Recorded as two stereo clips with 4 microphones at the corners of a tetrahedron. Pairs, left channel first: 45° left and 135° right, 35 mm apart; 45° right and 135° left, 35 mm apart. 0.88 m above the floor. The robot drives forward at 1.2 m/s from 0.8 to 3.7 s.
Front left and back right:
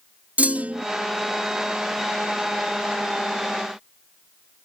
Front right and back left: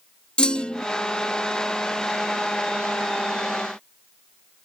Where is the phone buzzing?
I don't hear a phone buzzing.